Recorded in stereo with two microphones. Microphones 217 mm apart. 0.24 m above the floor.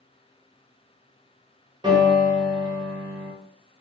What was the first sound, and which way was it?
A piano, 25° right (ahead or behind).